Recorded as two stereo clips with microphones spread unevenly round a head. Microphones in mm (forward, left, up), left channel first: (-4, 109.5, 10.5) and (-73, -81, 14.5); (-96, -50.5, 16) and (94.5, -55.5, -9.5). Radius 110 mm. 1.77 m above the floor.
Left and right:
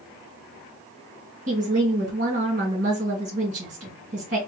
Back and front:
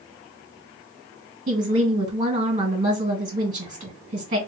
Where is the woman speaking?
55° right, 1.8 m.